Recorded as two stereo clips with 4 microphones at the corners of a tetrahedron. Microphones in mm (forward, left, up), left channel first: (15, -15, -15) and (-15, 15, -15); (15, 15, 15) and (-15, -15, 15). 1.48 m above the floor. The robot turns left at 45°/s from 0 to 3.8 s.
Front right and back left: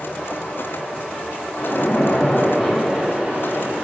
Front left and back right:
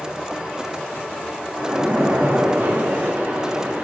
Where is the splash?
80° right, 5 m; by 3.9 s straight behind, 5 m.